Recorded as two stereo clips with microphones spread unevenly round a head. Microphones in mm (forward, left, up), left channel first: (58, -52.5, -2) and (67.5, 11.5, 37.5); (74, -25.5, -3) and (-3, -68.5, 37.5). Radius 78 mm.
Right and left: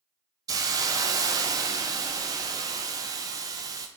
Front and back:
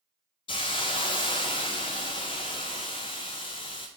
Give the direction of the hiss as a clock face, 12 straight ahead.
9 o'clock.